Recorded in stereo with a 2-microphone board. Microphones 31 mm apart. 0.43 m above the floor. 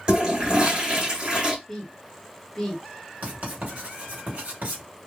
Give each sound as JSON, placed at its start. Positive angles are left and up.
{"t": 0.1, "sound": "a toilet flushing", "side_deg": -25, "distance_m": 2.0}
{"t": 1.7, "sound": "a woman speaking", "side_deg": 15, "distance_m": 1.2}
{"t": 3.2, "sound": "writing", "side_deg": -55, "distance_m": 2.0}